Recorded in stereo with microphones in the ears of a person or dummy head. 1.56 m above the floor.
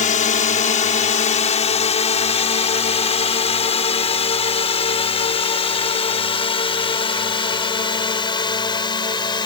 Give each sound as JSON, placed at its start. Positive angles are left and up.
{"t": 0.0, "sound": "a drone", "side_deg": 35}